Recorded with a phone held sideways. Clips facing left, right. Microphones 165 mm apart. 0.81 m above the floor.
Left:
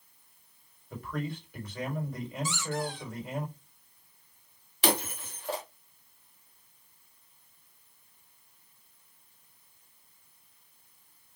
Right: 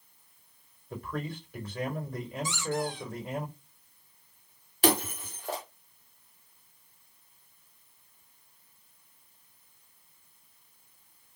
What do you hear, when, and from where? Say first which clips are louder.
0.9 s a man speaking: even; 30° right (ahead or behind), 3.5 m
2.5 s a squeak: right 3 dB; 15° right (ahead or behind), 1.2 m
4.8 s breaking glass: right 3 dB; 45° right (ahead or behind), 2 m